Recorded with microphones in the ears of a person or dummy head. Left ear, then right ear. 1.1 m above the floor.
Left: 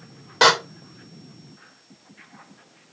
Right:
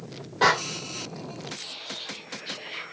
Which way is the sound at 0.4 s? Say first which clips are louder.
Left 5 dB; 65° left (ahead or behind).